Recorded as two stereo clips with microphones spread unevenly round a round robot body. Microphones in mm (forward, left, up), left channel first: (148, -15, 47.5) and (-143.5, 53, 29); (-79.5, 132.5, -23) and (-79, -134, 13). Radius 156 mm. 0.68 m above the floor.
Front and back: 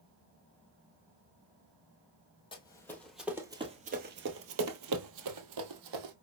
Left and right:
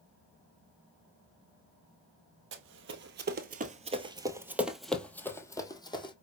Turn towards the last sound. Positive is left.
turn(degrees=165)